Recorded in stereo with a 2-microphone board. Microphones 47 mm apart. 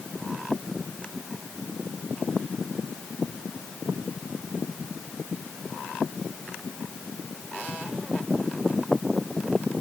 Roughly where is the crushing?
No crushing in this recording.